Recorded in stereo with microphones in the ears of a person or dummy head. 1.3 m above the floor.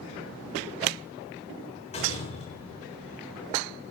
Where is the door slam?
35° left (ahead or behind), 3.5 m.